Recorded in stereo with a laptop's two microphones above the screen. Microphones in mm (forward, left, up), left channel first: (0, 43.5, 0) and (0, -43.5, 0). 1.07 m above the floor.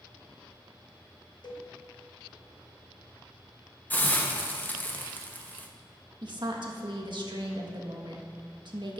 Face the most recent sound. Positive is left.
turn(degrees=-60)  # may be behind; listen again after turning